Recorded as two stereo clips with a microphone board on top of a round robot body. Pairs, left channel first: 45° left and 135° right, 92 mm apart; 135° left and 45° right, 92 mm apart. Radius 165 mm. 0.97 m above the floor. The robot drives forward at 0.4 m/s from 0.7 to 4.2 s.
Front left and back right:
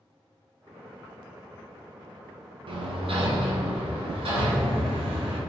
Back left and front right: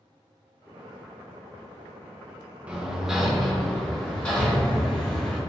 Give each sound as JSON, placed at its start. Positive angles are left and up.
{"t": 2.7, "sound": "hammering", "azimuth_deg": -120, "distance_m": 0.9}